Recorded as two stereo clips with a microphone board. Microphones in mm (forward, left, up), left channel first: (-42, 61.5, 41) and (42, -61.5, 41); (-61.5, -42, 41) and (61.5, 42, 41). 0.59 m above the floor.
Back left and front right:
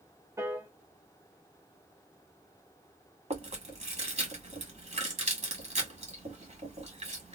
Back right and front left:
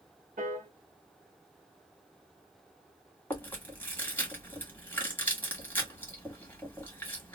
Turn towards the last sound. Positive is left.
turn(degrees=-70)